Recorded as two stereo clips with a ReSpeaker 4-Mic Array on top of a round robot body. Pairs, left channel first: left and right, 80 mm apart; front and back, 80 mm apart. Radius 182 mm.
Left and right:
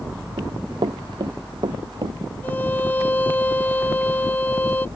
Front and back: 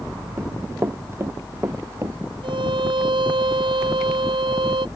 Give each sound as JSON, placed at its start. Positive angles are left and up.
{"t": 0.4, "sound": "running footsteps", "azimuth_deg": -120}
{"t": 2.4, "sound": "a violin", "azimuth_deg": 160}